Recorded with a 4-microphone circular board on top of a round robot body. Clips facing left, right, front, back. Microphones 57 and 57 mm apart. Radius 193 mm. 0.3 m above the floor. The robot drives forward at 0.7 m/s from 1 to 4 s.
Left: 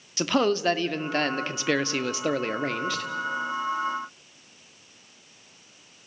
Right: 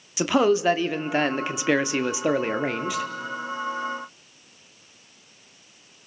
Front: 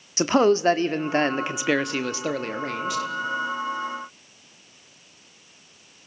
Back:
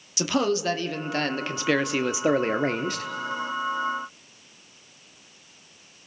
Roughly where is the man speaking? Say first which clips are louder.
Right 3 dB, front 6 dB; ahead.